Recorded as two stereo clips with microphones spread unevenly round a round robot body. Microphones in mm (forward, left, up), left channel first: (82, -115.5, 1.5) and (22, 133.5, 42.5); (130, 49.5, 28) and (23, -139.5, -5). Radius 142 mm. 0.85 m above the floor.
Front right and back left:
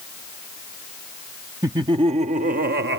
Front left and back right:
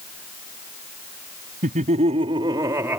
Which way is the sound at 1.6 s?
175° right.